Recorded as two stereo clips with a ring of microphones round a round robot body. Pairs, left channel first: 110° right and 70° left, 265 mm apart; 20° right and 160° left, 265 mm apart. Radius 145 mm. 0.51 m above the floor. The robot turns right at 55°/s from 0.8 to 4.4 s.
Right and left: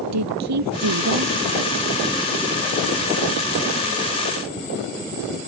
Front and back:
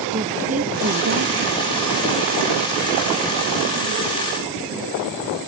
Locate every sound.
0.1 s a woman speaking: 95° left; by 1.5 s 135° left